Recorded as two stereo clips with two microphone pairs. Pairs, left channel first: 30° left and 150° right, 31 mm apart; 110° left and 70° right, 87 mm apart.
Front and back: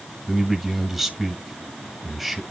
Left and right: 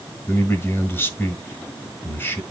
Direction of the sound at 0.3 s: 130° left.